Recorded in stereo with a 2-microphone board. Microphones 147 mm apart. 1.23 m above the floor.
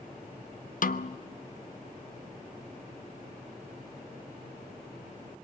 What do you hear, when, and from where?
0.8 s a snare drum: 65° left (ahead or behind), 0.6 m